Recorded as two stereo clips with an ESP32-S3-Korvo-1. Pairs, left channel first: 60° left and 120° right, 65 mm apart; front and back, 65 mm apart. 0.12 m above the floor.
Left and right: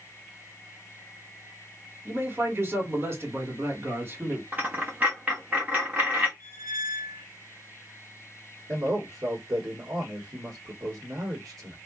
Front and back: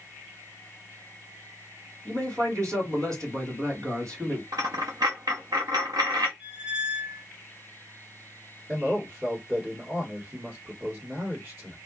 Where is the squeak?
110° right, 1.0 m.